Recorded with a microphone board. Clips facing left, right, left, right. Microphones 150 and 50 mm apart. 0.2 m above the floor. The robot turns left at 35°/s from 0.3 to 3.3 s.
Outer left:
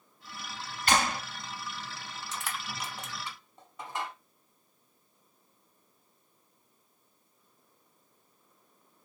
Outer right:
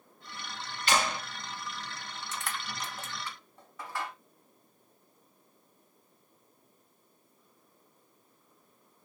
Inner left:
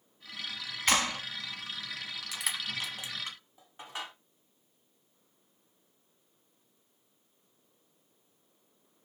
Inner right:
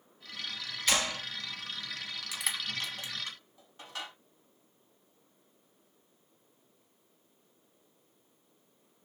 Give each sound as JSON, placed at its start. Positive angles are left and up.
{"t": 0.9, "sound": "a clap", "side_deg": 45, "distance_m": 1.1}
{"t": 2.3, "sound": "crushing", "side_deg": 0, "distance_m": 0.7}